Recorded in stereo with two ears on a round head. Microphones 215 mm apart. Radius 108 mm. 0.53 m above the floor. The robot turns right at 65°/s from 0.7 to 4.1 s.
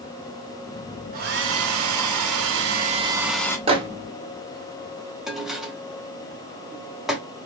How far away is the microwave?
About 0.7 m.